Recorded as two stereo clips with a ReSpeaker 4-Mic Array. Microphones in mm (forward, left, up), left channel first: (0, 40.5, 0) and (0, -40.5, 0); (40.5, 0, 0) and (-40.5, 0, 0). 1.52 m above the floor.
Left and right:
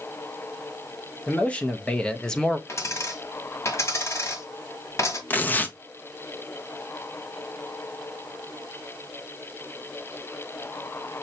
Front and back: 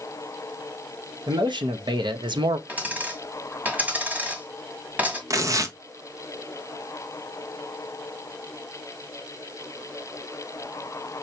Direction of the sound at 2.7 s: 120° left.